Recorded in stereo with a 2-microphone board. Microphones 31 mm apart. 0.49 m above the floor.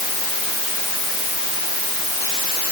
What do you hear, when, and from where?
Only background noise.